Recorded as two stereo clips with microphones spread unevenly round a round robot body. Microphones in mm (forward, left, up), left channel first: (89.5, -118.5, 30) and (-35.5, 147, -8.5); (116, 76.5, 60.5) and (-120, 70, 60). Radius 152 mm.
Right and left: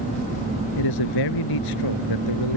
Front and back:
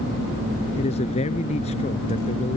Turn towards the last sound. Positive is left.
turn(degrees=-65)